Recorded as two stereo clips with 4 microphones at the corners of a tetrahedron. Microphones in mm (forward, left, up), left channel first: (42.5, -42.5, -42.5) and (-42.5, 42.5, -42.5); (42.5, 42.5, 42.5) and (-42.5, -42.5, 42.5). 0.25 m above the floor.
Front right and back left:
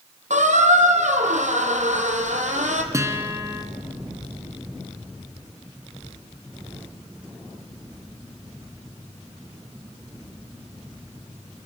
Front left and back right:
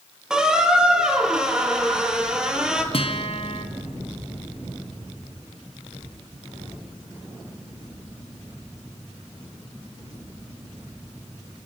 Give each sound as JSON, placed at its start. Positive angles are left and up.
{"t": 0.3, "sound": "a squeak", "azimuth_deg": 140, "distance_m": 1.8}
{"t": 2.9, "sound": "a guitar", "azimuth_deg": 75, "distance_m": 2.0}